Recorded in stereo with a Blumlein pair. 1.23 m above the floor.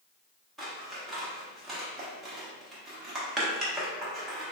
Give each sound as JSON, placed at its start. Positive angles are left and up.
{"t": 0.6, "sound": "scissors", "azimuth_deg": -15, "distance_m": 1.1}